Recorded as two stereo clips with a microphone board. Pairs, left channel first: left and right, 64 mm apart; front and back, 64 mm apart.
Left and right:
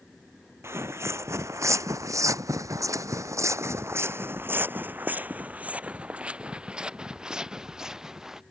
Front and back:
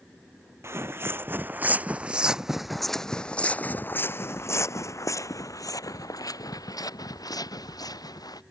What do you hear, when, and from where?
0.6 s footsteps: 130° right; by 8.4 s 5° right